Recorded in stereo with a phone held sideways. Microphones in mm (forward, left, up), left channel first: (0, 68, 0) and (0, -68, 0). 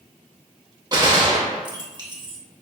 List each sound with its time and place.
0.9 s a gunshot: 30° right (ahead or behind), 1.0 m